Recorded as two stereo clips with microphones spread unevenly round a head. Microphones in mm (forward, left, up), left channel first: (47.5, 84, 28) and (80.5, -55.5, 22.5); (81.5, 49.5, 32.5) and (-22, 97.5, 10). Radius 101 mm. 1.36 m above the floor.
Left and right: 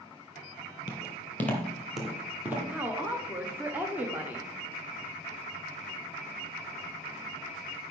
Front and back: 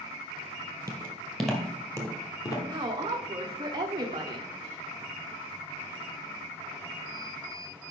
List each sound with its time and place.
0.9 s footsteps: 90° left, 1.5 m; by 2.6 s 5° right, 2.0 m
2.7 s a woman speaking: 155° right, 0.6 m